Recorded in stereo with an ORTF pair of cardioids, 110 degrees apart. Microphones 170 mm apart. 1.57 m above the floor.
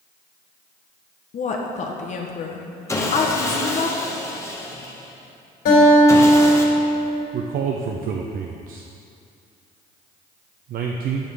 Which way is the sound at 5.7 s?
70° left.